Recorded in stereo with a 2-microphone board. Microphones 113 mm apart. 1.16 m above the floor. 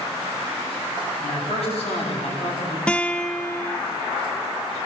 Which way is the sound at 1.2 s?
65° left (ahead or behind).